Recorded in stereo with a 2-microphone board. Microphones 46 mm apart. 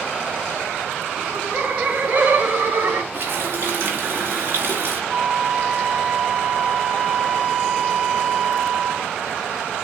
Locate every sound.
1.2 s laughter: 40° right (ahead or behind), 4.5 m; by 3.0 s 50° right (ahead or behind), 3.5 m
3.1 s a running tap: 55° right (ahead or behind), 3 m
5.1 s a flute: 15° right (ahead or behind), 1.0 m